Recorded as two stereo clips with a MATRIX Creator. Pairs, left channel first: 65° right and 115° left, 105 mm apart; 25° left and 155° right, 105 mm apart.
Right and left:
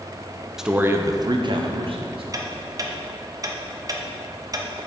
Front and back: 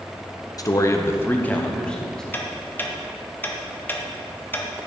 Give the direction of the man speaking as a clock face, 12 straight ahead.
11 o'clock.